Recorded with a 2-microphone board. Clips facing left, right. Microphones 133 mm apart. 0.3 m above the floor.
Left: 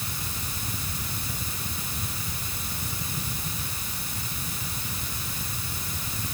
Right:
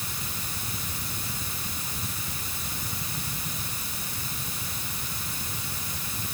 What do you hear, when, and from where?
Only background noise.